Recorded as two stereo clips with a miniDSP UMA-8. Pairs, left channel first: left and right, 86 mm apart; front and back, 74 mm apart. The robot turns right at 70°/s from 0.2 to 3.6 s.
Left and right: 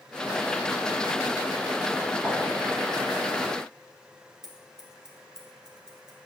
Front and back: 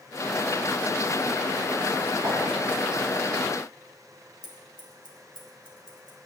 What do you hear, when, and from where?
2.2 s a clink: 170° right, 3 m; by 2.4 s 160° right, 3 m
4.4 s scissors: 175° right, 1.8 m